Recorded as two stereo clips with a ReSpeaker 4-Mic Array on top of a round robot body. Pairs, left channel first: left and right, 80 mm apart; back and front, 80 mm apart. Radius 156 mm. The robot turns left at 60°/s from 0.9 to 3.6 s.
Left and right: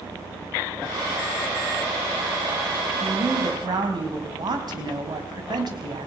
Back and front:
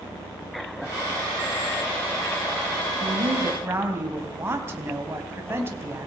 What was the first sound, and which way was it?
A woman speaking, 25° right.